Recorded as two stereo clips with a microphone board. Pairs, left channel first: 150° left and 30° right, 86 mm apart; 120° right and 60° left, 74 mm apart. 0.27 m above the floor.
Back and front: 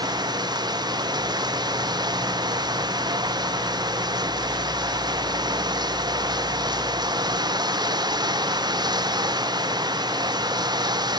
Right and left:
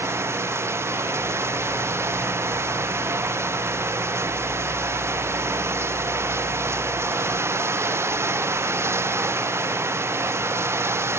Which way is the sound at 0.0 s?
5° left.